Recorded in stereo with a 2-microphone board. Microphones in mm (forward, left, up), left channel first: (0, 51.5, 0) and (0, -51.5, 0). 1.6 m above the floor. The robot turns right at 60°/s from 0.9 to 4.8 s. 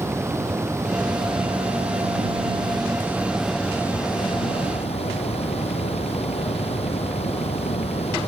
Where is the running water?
155° right; by 8.3 s 80° left.